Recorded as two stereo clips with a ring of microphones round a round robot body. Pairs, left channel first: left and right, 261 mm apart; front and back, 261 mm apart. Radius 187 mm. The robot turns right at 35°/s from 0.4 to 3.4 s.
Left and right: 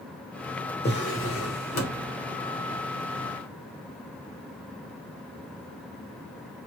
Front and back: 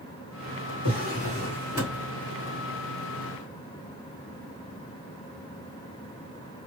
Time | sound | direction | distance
0.8 | a drawer | 35° left | 1.2 m